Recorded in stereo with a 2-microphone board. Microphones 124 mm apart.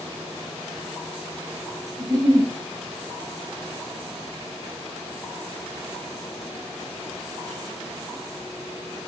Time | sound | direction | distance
2.0 | a giggle | 30° right (ahead or behind) | 3.5 m